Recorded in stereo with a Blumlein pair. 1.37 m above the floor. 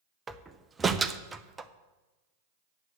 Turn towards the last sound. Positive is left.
turn(degrees=-10)